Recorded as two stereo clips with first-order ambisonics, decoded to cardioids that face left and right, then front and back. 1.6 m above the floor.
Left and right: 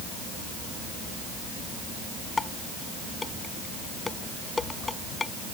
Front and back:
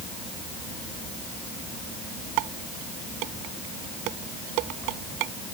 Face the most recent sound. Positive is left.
turn(degrees=165)